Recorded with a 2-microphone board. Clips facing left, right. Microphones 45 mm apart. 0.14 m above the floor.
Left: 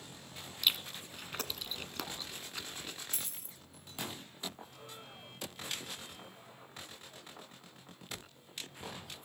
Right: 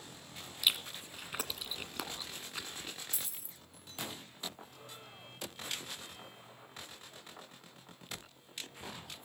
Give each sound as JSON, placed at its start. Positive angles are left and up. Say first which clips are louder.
{"t": 0.6, "sound": "chewing", "louder": "even", "side_deg": -10, "distance_m": 1.3}
{"t": 3.1, "sound": "a dropped coin", "louder": "left 1 dB", "side_deg": 55, "distance_m": 0.9}